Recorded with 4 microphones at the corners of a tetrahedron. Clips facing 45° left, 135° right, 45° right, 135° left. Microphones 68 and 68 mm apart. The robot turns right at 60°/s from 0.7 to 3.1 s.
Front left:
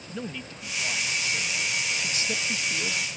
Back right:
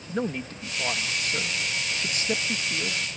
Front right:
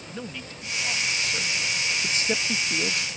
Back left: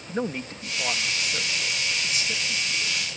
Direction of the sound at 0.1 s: Straight behind.